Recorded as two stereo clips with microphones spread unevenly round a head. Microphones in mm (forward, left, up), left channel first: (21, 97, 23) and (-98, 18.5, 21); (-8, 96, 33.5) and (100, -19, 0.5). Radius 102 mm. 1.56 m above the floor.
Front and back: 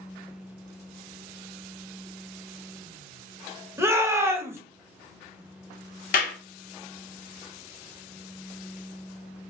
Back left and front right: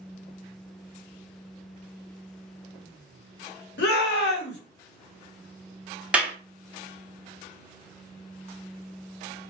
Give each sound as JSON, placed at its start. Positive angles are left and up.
{"t": 3.8, "sound": "a shout", "azimuth_deg": 140, "distance_m": 0.9}
{"t": 6.1, "sound": "a clap", "azimuth_deg": 40, "distance_m": 0.7}